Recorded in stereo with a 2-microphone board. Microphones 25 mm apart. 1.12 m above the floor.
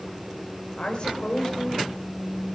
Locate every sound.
0.8 s a woman speaking: 45° left (ahead or behind), 5 m; by 1.8 s 35° left (ahead or behind), 6 m